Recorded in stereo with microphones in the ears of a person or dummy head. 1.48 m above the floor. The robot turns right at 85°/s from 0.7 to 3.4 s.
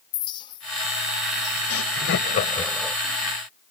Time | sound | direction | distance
0.1 | a clink | 25° left (ahead or behind) | ?
1.7 | laughter | 85° left | ?